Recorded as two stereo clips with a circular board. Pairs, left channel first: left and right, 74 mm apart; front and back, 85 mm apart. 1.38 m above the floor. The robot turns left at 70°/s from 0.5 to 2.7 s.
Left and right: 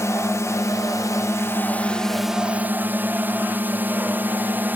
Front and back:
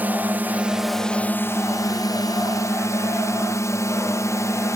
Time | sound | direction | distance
0.0 | a drone | 115° left | ?